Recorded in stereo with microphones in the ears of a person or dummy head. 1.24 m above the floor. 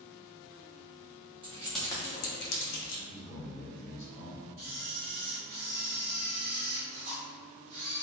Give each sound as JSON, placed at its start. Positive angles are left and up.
{"t": 1.4, "sound": "keys jangling", "side_deg": -25, "distance_m": 0.8}
{"t": 3.1, "sound": "a man speaking", "side_deg": 20, "distance_m": 1.5}
{"t": 4.6, "sound": "a camera shutter", "side_deg": -35, "distance_m": 1.1}